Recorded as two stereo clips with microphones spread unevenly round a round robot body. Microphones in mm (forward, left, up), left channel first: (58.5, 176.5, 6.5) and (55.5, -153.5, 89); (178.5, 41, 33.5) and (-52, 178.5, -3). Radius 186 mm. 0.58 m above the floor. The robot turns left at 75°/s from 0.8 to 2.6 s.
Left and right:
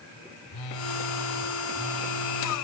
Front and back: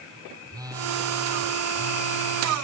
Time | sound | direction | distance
0.5 | a phone buzzing | 70° left | 3.5 m